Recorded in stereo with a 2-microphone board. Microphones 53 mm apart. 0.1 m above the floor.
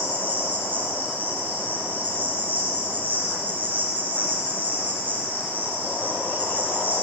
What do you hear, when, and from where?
0.0 s an insect: 35° right (ahead or behind), 9 m